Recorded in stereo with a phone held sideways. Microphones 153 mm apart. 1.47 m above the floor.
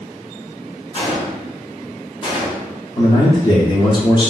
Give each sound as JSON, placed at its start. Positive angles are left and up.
{"t": 0.9, "sound": "a gunshot", "side_deg": 30, "distance_m": 1.0}
{"t": 3.0, "sound": "a man speaking", "side_deg": 30, "distance_m": 0.7}